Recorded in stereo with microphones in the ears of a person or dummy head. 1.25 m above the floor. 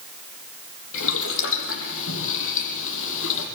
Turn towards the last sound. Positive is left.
turn(degrees=75)  # may be behind; listen again after turning